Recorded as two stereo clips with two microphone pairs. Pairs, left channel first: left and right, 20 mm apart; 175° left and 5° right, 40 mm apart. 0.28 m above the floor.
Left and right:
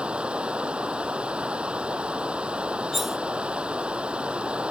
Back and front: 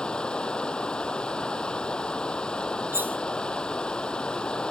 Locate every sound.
0.0 s running water: 120° right
2.9 s cutlery clinking: 10° right